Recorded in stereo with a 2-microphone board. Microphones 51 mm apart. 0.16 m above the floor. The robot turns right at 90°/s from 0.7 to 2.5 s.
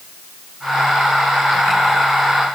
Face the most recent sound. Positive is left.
No sound to turn to.